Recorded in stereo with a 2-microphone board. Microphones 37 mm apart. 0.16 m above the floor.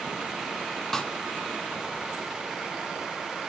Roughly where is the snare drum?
Centre.